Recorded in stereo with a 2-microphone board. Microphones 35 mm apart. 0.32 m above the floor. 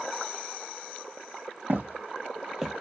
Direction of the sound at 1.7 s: 65° right (ahead or behind).